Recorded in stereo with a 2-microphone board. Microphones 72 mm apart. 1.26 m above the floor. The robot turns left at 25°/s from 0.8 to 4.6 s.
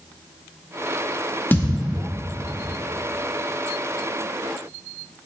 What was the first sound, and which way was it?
A thud, 25° left (ahead or behind).